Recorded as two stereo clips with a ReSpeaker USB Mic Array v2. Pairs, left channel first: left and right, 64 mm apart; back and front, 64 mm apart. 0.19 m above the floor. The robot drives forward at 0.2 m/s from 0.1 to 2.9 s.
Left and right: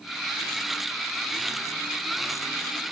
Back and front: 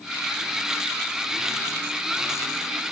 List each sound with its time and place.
Only background noise.